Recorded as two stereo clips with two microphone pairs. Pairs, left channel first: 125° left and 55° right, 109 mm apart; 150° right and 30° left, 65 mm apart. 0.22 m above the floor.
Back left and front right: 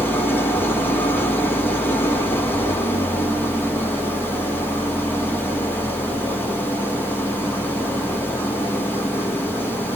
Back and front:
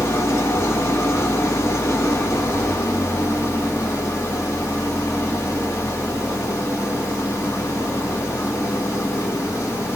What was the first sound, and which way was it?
An engine running, 170° right.